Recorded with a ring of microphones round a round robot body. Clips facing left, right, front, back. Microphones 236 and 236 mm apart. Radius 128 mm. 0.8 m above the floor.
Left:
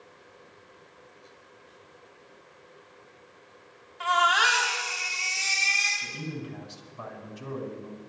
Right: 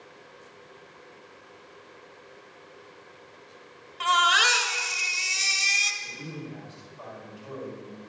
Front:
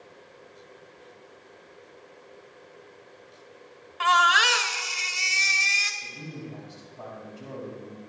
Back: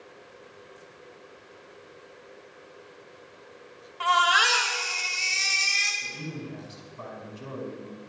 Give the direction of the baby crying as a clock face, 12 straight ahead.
2 o'clock.